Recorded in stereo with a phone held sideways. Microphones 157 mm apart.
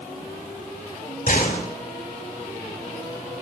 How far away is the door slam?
About 5 m.